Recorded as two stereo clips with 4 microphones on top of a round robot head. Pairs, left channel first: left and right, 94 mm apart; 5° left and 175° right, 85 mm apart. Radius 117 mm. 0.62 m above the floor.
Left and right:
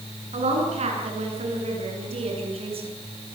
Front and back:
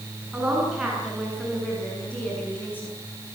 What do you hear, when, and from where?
0.3 s a woman speaking: 95° right, 7.5 m; by 2.9 s 70° right, 7.5 m